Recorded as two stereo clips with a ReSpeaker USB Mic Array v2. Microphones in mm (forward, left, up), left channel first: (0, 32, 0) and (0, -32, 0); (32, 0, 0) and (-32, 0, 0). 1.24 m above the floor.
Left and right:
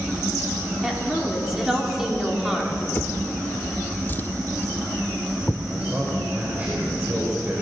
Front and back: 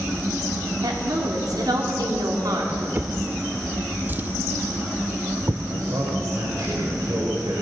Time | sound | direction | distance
0.8 | a woman speaking | 175° right | 4 m
3.0 | a drawer | 135° left | 1.1 m
5.7 | a man speaking | 155° right | 5 m